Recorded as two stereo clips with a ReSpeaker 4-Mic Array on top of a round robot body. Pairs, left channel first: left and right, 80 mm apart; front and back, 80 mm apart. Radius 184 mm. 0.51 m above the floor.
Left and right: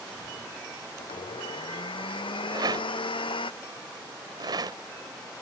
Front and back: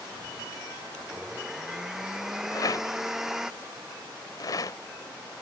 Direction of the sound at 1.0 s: 95° left.